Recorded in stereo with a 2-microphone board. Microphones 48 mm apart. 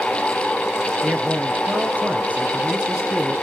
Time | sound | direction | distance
1.0 | a man speaking | 40° right (ahead or behind) | 2.5 m